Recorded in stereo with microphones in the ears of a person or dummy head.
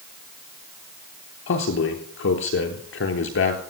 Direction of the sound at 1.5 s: 65° left (ahead or behind).